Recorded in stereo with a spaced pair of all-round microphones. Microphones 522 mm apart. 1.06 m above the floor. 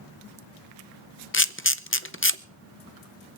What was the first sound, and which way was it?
A camera shutter, 25° left (ahead or behind).